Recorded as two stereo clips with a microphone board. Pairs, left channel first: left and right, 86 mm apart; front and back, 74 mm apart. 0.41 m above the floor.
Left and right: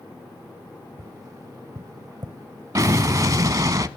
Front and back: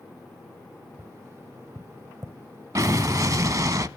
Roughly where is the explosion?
Behind right.